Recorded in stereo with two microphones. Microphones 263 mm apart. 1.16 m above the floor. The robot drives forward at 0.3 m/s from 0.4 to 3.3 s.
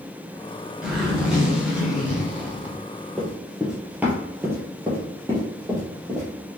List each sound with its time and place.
0.8 s a zipper: 5° right (ahead or behind), 1.2 m
3.2 s running footsteps: centre (ahead or behind), 1.2 m; by 6.3 s 15° right (ahead or behind), 2.5 m